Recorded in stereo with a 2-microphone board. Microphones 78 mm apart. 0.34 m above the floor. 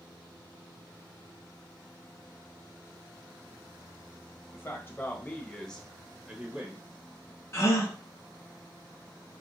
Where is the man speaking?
30° left (ahead or behind), 1.5 m; by 6.8 s 20° right (ahead or behind), 1.2 m.